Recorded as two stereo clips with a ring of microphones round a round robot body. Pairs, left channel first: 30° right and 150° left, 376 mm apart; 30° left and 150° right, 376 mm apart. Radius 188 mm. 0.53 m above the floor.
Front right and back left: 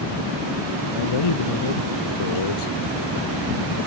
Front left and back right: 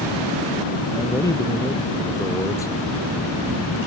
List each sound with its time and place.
0.9 s a man speaking: 50° right